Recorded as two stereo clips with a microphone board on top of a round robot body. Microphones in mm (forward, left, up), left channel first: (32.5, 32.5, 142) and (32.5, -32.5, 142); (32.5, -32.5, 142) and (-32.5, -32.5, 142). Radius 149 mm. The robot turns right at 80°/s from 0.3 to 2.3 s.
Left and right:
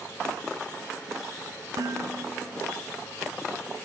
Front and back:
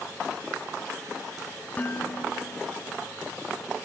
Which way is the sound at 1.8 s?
65° right.